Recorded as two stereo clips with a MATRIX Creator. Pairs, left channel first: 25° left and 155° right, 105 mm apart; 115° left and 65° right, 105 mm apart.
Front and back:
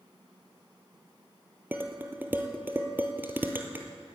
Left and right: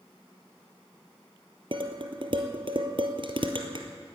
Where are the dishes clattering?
90° right, 1.4 m.